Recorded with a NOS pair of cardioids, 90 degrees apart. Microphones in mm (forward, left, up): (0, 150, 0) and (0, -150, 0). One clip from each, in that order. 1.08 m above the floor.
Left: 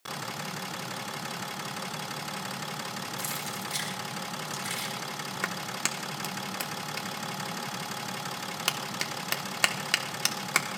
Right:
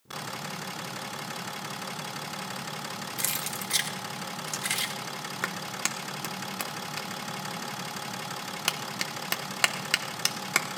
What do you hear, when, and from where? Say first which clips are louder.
3.2 s keys jangling: right 2 dB; 60° right, 2.5 m
5.4 s a clap: even; 5° right, 1.6 m